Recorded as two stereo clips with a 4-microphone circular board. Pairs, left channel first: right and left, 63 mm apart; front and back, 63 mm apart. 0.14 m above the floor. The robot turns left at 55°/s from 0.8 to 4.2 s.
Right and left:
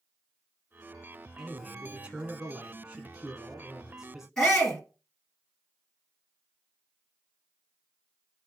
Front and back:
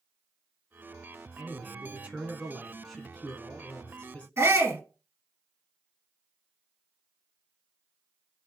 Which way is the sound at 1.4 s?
170° left.